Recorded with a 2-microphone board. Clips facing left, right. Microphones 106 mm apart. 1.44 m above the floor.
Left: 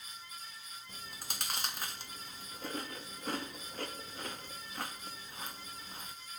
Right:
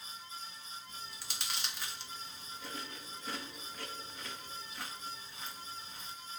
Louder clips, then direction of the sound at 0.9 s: Left 1 dB; 50° left (ahead or behind).